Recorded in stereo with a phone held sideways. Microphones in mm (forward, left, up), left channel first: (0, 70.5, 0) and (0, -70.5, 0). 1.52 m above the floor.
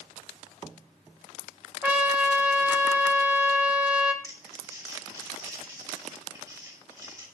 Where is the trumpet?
10° right (ahead or behind), 1.4 m.